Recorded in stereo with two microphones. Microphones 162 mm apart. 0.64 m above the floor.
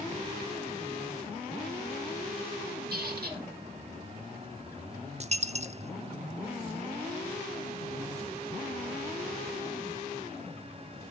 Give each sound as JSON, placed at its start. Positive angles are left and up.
{"t": 2.9, "sound": "a squeak", "side_deg": -75, "distance_m": 5.0}
{"t": 5.2, "sound": "a dropped coin", "side_deg": -45, "distance_m": 0.7}